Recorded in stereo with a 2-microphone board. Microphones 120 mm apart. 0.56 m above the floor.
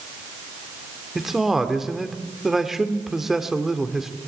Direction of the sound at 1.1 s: 5° right (ahead or behind).